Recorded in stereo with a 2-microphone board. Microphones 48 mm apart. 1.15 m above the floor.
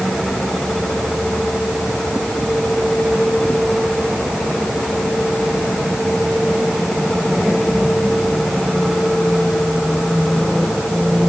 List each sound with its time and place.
Only background noise.